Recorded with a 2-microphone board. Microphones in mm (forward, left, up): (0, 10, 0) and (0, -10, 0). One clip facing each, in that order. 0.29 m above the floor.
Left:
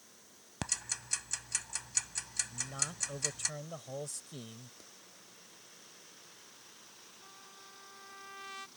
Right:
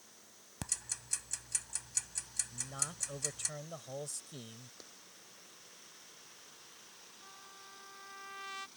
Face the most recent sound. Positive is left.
turn(degrees=-10)  # may be behind; listen again after turning